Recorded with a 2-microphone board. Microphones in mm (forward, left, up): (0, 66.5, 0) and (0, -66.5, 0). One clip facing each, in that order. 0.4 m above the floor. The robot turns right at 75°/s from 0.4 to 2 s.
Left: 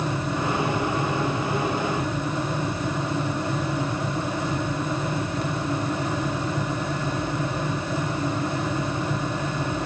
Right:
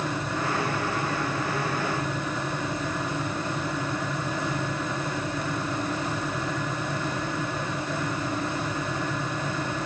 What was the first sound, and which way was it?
Only background noise.